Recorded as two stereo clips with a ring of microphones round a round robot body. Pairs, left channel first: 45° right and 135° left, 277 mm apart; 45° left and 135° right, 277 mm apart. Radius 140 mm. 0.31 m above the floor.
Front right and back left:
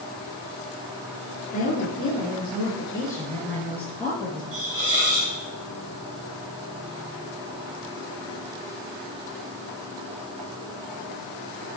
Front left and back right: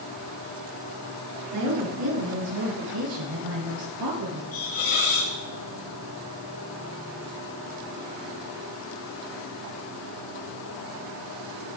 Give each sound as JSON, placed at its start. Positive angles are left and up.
{"t": 1.5, "sound": "a woman speaking", "azimuth_deg": -110, "distance_m": 4.5}
{"t": 4.5, "sound": "a hiss", "azimuth_deg": 85, "distance_m": 6.5}